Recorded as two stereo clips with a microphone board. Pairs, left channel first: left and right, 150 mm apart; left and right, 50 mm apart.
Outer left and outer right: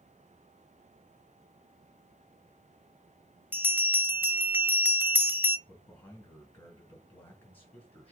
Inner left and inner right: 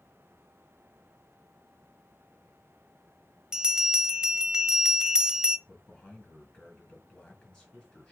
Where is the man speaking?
10° left (ahead or behind), 4 m.